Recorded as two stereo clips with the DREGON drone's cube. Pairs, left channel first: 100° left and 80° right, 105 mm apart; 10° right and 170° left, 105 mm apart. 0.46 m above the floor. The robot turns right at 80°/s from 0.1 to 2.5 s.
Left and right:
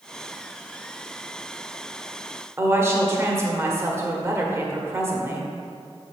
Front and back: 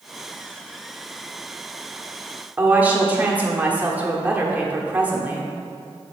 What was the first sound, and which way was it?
A woman speaking, 125° right.